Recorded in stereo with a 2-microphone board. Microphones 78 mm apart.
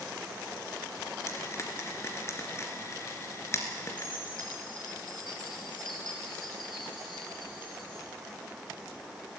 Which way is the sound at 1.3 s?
35° left (ahead or behind).